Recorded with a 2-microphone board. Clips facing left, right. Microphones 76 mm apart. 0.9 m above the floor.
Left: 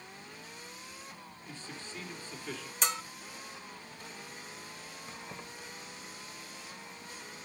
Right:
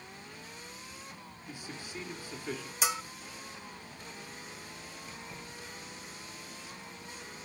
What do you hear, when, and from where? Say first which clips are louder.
1.5 s a man speaking: right 2 dB; 10° right (ahead or behind), 2.5 m
2.8 s a bell: right 1 dB; 5° right (ahead or behind), 0.6 m
5.1 s keys jangling: left 3 dB; 45° left (ahead or behind), 3 m